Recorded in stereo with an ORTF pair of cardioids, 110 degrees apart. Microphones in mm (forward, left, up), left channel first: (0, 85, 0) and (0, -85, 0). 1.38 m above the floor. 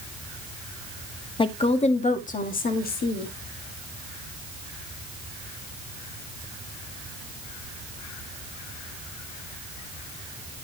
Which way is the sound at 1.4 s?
30° left.